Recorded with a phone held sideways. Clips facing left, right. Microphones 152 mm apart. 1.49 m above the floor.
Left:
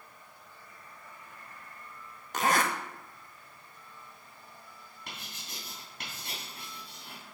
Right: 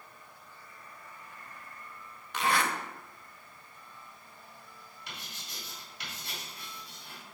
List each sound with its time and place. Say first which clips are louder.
2.3 s a zipper: left 2 dB; 45° left (ahead or behind), 0.6 m
5.1 s writing: left 2 dB; 55° left (ahead or behind), 2.5 m